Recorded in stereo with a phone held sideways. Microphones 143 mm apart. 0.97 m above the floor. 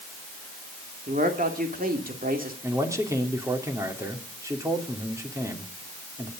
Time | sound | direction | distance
1.1 | a man speaking | 70° right (ahead or behind) | 2.5 m
2.6 | a man speaking | 20° right (ahead or behind) | 2.5 m